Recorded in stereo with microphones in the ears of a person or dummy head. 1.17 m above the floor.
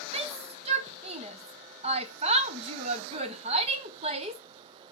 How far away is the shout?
About 0.5 m.